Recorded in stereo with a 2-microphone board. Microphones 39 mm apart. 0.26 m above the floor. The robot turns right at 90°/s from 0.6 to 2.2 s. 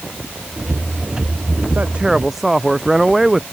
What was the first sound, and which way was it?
A man speaking, 45° right.